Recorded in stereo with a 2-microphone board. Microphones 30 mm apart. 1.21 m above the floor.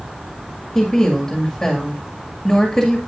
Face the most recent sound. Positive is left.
turn(degrees=20)  # may be behind; listen again after turning